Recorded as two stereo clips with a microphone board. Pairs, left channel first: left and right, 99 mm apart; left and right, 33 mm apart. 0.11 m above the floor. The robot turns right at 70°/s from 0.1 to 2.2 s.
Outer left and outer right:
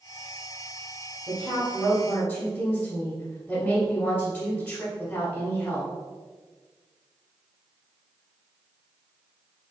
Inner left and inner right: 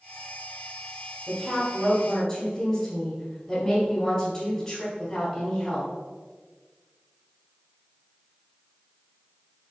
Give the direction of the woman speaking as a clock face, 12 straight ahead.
1 o'clock.